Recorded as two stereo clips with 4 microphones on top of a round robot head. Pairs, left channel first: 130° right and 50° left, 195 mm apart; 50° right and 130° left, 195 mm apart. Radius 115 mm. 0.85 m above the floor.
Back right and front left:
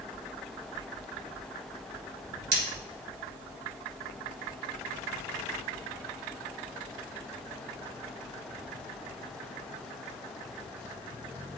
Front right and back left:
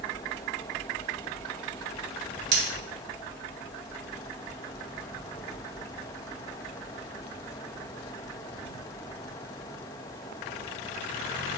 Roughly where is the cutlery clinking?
Left.